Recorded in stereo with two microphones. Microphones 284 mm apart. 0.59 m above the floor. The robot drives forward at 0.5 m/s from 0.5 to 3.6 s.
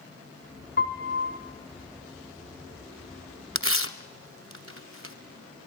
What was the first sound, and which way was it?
A piano, 35° left (ahead or behind).